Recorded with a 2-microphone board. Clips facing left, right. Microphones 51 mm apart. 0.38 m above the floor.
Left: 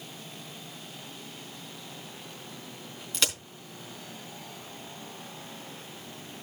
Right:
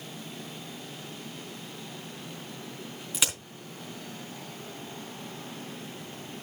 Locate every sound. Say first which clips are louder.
3.1 s a crack: left 1 dB; 10° right (ahead or behind), 4 m